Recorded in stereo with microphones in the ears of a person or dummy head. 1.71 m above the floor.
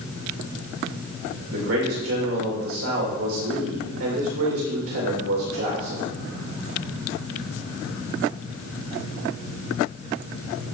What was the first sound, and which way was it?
A man speaking, 80° right.